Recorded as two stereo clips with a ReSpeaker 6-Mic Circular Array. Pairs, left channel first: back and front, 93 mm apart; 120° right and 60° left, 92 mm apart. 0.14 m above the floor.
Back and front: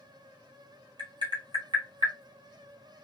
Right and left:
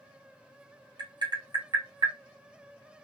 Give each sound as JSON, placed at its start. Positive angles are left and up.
{"t": 1.0, "sound": "tapping", "azimuth_deg": 20, "distance_m": 1.6}